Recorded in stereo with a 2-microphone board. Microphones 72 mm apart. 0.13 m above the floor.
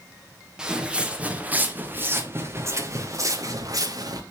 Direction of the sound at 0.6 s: 10° right (ahead or behind).